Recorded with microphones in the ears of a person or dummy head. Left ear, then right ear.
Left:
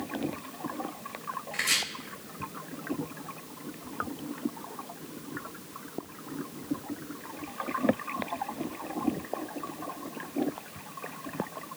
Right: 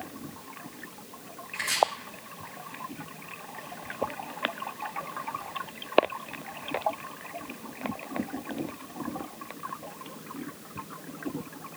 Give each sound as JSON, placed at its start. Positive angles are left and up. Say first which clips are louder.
{"t": 1.5, "sound": "chopping", "louder": "left 2 dB", "side_deg": 60, "distance_m": 2.5}